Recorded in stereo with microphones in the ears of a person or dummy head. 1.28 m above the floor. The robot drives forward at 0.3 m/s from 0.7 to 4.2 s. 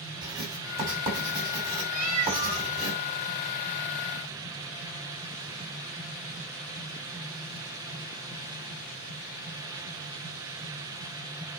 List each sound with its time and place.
0.2 s writing: 20° right (ahead or behind), 5.5 m; by 2.9 s 15° right (ahead or behind), 6 m
1.9 s a cat meowing: 40° right (ahead or behind), 1.4 m; by 2.7 s 35° right (ahead or behind), 1.6 m